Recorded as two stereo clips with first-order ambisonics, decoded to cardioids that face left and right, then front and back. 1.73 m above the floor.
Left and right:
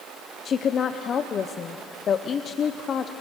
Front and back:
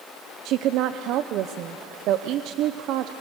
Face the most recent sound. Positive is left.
turn(degrees=150)